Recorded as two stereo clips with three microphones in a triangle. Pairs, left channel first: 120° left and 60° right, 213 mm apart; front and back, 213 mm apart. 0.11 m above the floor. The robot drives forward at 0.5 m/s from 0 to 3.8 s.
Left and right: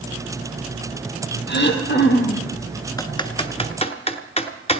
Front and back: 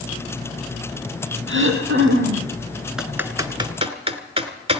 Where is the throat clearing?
155° left, 2 m; by 2.5 s 160° left, 2.5 m.